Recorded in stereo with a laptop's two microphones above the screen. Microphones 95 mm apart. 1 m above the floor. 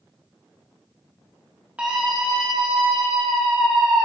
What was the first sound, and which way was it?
A scream, 10° right (ahead or behind).